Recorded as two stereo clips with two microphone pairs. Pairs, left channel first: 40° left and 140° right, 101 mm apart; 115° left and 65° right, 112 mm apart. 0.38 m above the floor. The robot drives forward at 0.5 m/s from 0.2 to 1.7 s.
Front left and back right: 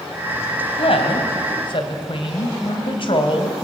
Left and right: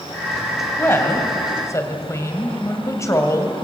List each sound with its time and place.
0.8 s a woman speaking: 45° left, 2.5 m; by 3.5 s 55° left, 2.5 m